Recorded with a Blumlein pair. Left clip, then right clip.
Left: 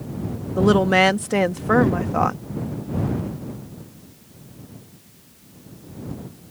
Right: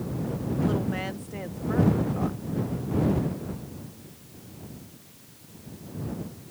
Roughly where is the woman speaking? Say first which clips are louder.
Left 16 dB; ahead left.